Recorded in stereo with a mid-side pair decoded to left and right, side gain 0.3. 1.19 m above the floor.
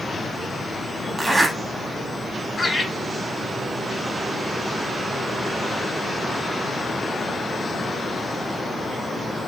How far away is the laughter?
About 1.0 m.